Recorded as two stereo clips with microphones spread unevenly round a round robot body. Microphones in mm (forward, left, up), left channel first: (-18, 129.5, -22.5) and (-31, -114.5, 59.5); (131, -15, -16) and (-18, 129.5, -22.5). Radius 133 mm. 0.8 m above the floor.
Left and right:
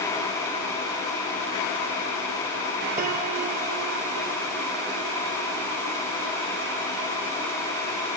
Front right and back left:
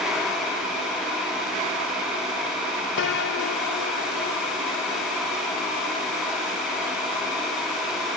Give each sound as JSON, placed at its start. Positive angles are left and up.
{"t": 3.0, "sound": "a piano", "azimuth_deg": -25}